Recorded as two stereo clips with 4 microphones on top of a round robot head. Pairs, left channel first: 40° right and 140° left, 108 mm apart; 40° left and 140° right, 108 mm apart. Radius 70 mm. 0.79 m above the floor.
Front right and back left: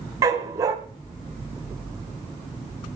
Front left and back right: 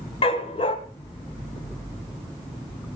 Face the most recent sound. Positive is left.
turn(degrees=80)